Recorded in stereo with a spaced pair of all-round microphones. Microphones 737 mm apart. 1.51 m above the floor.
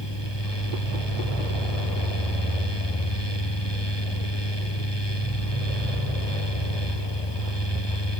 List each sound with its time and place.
0.0 s a fan: 35° left (ahead or behind)